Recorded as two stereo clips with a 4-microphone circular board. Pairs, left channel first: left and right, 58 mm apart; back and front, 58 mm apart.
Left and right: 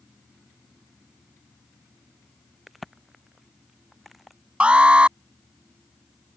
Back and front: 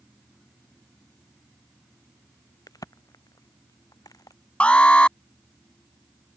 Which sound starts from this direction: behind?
A crack, at 2.7 s.